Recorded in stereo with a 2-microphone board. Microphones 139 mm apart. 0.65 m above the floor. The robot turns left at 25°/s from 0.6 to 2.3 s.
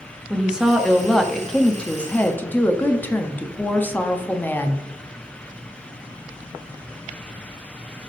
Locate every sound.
0.3 s a woman speaking: 5° right (ahead or behind), 0.7 m; by 4.8 s 15° left (ahead or behind), 0.7 m